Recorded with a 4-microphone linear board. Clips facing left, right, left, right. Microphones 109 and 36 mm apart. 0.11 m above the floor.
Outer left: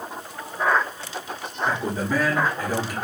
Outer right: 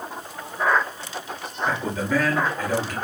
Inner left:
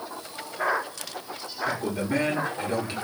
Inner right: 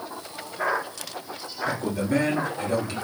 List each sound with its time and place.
1.6 s a man speaking: 10° left (ahead or behind), 2.5 m